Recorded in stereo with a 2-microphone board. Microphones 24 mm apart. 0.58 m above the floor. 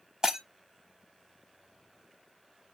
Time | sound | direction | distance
0.2 | breaking glass | 30° right (ahead or behind) | 0.9 m